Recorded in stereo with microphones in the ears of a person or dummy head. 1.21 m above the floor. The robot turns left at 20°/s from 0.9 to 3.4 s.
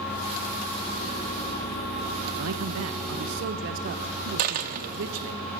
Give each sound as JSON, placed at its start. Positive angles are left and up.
{"t": 2.4, "sound": "a man speaking", "side_deg": -75, "distance_m": 0.9}
{"t": 4.4, "sound": "a dropped coin", "side_deg": -40, "distance_m": 0.9}